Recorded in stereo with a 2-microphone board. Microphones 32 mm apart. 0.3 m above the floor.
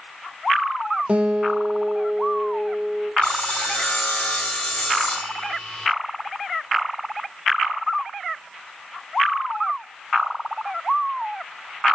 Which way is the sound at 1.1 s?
40° right (ahead or behind).